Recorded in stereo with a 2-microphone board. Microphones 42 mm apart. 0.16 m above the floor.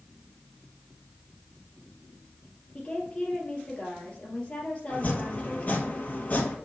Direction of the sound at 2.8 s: 25° left (ahead or behind).